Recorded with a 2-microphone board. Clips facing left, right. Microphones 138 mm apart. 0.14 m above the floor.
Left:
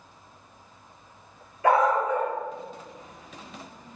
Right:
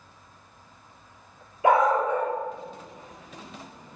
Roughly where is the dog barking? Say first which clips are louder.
Right 1 dB; centre.